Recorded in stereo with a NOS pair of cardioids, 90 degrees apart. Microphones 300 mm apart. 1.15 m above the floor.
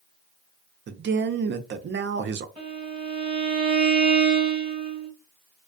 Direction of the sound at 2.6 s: 20° right.